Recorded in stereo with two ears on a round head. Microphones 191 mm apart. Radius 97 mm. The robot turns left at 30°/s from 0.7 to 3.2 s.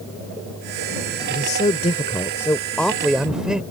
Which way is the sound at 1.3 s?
50° left.